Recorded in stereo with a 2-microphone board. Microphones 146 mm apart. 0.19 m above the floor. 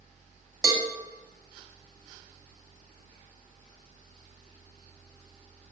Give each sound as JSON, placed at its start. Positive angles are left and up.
{"t": 0.6, "sound": "a cowbell", "side_deg": -25, "distance_m": 0.5}